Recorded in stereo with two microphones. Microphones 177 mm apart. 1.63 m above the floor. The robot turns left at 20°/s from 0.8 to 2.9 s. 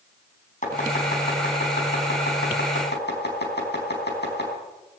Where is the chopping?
45° left (ahead or behind), 4.5 m; by 4.5 s 75° left (ahead or behind), 4.5 m.